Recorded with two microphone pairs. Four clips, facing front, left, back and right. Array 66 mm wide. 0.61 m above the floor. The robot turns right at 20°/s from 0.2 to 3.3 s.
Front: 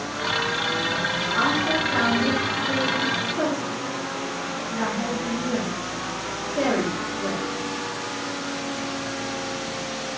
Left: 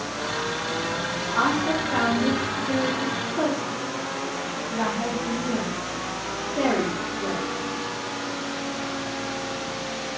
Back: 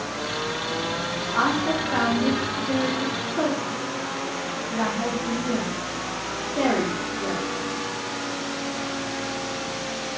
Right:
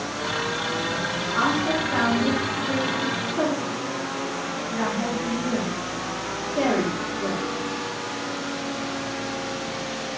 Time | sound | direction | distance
1.3 | a woman speaking | 175° left | 0.8 m